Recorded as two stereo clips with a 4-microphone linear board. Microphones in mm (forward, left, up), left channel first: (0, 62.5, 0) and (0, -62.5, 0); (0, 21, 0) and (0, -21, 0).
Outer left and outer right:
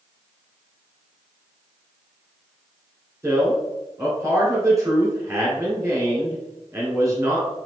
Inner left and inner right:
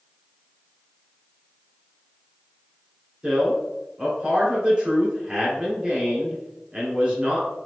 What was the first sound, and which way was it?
A man speaking, 25° right (ahead or behind).